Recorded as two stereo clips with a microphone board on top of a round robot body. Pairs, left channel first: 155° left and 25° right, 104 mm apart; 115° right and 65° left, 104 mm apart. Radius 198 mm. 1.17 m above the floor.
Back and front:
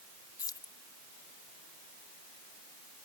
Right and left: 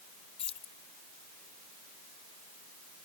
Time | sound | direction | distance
0.4 | keys jangling | 145° right | ?